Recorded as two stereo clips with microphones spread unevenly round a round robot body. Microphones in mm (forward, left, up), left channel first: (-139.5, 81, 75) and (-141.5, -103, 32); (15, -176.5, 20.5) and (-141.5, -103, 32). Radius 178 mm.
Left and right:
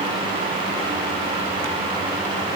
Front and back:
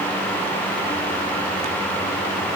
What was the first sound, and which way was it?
Only background noise.